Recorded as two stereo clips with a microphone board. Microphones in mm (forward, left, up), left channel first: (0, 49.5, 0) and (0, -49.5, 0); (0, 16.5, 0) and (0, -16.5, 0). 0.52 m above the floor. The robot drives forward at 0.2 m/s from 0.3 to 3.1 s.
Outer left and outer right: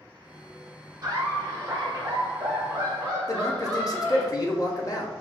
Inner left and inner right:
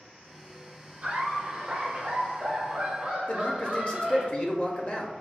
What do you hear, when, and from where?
1.0 s laughter: 35° right (ahead or behind), 1.6 m; by 4.3 s 30° right (ahead or behind), 1.8 m
3.3 s a man speaking: 35° left (ahead or behind), 0.8 m